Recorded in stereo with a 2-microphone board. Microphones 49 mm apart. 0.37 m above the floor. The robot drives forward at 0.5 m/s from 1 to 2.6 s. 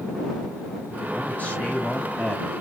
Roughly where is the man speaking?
Left.